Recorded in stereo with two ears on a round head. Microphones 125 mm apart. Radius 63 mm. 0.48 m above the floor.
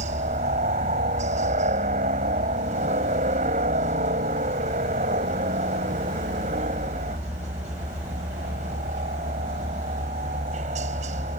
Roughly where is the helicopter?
Right.